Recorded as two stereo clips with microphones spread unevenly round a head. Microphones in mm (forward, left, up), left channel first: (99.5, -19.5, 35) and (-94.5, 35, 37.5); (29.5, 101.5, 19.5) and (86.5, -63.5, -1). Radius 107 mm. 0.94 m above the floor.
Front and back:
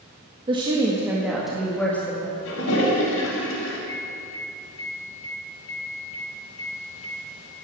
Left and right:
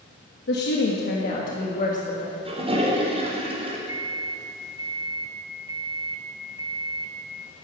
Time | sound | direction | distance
0.5 | a woman speaking | 105° left | 1.5 m
2.5 | a toilet flushing | 15° right | 3 m
3.9 | a microwave | 5° right | 1.4 m